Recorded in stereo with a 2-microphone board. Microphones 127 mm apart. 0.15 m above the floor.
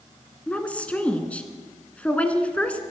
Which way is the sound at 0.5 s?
10° left (ahead or behind).